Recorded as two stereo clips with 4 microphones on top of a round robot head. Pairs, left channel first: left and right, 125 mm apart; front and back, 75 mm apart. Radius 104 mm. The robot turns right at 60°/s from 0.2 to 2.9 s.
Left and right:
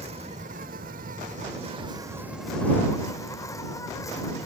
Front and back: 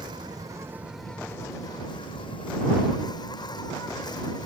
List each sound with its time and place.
0.0 s an insect: 140° right; by 4.5 s 25° left